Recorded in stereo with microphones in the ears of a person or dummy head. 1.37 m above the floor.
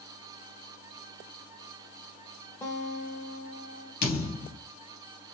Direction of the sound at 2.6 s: 15° left (ahead or behind).